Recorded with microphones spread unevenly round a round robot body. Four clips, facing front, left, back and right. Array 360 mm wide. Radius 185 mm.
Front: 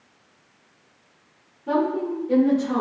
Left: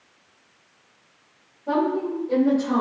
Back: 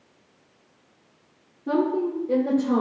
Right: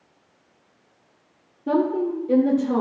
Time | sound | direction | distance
1.7 | a woman speaking | 115° right | 1.6 m